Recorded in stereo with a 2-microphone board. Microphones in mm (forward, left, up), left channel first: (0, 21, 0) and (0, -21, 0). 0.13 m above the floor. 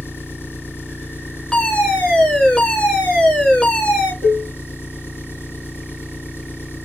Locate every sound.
0.0 s an engine running: 65° left (ahead or behind), 2 m
1.5 s a fire alarm: 25° left (ahead or behind), 2.5 m
4.2 s dishes clattering: 20° left (ahead or behind), 1.9 m